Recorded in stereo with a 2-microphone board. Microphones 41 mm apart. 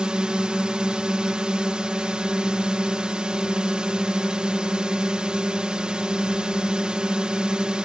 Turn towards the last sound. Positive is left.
turn(degrees=-20)  # may be behind; listen again after turning